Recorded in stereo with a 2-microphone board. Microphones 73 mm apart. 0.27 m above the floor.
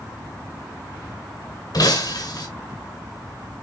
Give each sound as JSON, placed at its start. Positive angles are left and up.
{"t": 1.7, "sound": "breaking glass", "side_deg": 60, "distance_m": 2.0}